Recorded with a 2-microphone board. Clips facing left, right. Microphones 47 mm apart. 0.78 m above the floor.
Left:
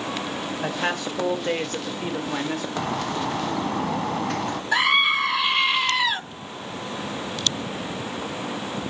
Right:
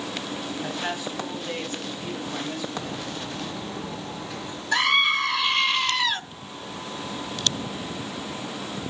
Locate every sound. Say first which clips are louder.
0.6 s a man speaking: left 6 dB; 65° left (ahead or behind), 4 m; by 2.7 s 55° left (ahead or behind), 3 m
2.8 s a bird: left 6 dB; 75° left (ahead or behind), 1.8 m
4.7 s a scream: left 1 dB; 10° left (ahead or behind), 1.3 m